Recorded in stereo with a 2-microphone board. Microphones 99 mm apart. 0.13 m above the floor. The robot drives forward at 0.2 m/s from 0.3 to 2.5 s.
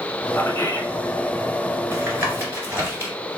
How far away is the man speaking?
About 1.1 m.